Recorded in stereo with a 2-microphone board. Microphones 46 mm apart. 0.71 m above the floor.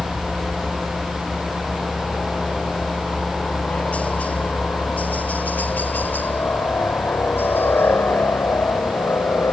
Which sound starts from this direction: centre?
A helicopter, at 0.0 s.